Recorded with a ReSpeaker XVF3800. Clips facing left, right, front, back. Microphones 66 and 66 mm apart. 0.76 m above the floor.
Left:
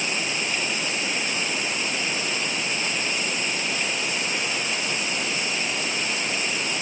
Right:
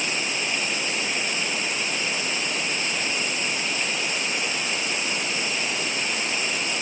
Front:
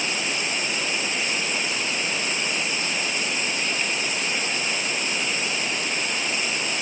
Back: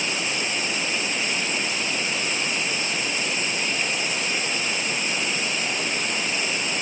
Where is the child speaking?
I don't hear a child speaking.